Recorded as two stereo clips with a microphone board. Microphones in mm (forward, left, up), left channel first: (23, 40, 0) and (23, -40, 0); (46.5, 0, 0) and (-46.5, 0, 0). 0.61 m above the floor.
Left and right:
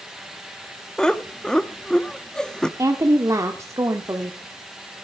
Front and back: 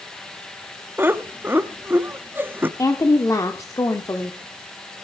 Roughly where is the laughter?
Behind left.